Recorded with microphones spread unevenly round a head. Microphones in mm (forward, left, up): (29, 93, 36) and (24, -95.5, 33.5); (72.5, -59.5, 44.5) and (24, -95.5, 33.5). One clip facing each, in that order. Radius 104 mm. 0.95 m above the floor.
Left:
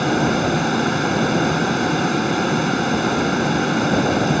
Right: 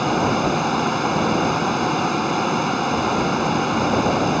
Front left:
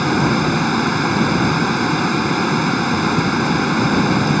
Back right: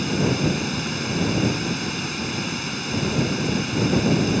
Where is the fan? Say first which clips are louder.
Left 1 dB, front left 6 dB; 10° left.